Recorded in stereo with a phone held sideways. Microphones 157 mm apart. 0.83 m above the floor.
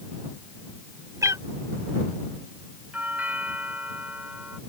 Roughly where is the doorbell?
Centre.